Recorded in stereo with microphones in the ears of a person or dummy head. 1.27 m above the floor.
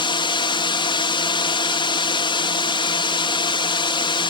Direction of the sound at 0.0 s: 25° left (ahead or behind).